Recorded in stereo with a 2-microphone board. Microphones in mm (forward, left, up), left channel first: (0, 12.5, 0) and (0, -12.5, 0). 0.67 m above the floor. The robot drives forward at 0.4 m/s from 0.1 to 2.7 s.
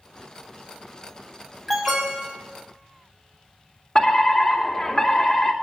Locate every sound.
1.7 s an alarm: centre (ahead or behind), 5 m
4.0 s a fire alarm: 30° left (ahead or behind), 2.5 m